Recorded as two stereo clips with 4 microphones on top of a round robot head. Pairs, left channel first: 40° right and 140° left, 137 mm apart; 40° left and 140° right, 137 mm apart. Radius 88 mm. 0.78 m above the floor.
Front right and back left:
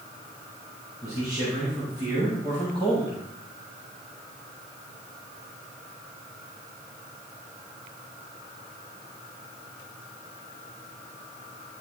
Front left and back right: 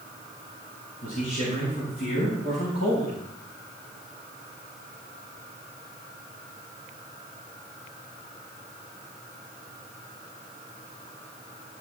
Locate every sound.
1.0 s a man speaking: 75° left, 5.5 m; by 3.2 s 80° left, 6.5 m